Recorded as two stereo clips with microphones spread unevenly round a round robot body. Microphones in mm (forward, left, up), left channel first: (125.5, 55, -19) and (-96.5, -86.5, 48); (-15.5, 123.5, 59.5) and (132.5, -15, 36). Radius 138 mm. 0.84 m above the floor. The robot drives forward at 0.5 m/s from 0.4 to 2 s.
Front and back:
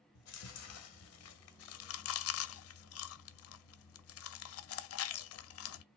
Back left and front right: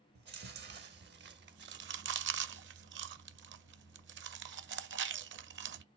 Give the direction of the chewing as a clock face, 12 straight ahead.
12 o'clock.